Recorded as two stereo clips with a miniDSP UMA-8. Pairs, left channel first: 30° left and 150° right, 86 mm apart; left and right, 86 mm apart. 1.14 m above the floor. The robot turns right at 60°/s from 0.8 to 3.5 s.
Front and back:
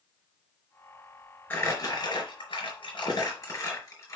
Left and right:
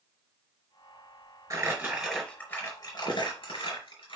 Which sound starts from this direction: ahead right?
Crumpling, at 1.5 s.